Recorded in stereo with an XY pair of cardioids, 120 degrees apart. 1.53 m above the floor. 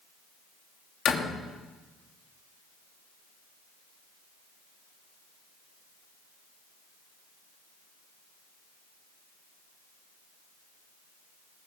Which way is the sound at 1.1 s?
45° left.